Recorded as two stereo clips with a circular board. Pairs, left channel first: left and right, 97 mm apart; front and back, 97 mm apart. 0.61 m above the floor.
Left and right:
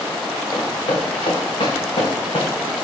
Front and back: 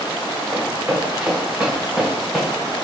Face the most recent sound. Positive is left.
turn(degrees=80)